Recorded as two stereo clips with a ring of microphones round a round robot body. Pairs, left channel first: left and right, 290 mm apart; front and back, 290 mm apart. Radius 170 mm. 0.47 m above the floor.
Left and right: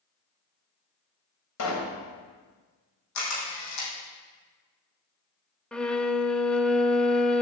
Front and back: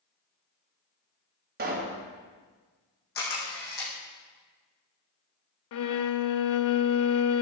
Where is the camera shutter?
60° left, 5.5 m.